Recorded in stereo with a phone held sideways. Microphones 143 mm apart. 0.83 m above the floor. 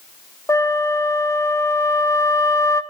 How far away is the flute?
About 0.8 m.